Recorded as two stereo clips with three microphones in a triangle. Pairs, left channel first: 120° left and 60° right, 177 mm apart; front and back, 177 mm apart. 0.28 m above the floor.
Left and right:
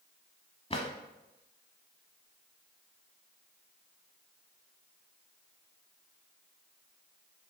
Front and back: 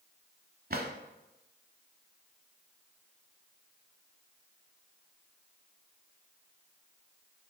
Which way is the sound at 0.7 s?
170° left.